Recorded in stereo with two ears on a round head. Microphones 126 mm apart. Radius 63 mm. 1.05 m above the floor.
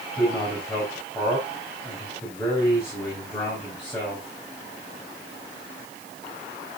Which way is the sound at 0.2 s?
20° left (ahead or behind).